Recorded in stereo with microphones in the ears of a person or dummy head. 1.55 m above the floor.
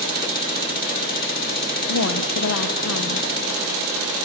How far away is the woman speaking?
About 1.0 m.